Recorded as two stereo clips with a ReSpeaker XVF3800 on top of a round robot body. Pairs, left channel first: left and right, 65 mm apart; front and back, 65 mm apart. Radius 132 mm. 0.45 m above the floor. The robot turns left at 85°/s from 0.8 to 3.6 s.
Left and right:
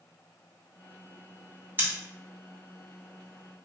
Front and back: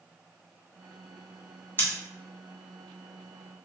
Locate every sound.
1.8 s scissors: 40° right, 1.3 m; by 1.9 s 50° right, 1.3 m